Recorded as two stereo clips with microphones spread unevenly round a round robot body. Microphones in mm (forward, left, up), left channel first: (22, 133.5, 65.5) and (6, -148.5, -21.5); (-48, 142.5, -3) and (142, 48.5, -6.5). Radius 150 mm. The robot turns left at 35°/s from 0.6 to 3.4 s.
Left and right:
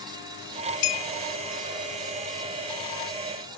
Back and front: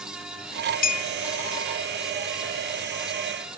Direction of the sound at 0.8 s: 100° left.